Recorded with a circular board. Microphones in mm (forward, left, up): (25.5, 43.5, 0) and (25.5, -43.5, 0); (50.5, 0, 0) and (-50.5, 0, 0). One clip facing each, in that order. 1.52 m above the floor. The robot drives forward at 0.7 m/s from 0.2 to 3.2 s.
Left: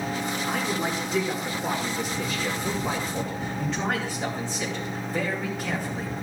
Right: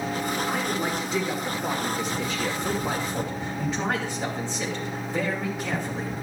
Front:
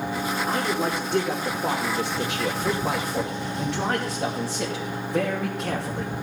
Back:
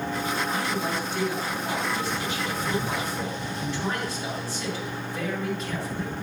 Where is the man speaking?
5° right, 4.5 m; by 6.1 s 10° right, 2.5 m.